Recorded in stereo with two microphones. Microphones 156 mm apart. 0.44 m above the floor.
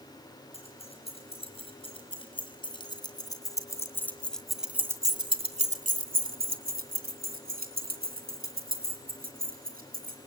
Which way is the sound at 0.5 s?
40° left (ahead or behind).